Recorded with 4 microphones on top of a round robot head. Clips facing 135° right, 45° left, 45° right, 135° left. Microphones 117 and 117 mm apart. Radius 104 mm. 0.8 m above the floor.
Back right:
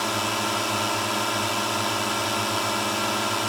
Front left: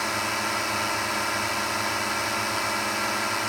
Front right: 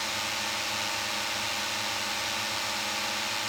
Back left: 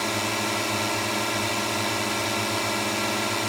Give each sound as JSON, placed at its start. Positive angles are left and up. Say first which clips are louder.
{"t": 0.0, "sound": "a drone", "louder": "back right 2 dB, back left 8 dB", "azimuth_deg": 155}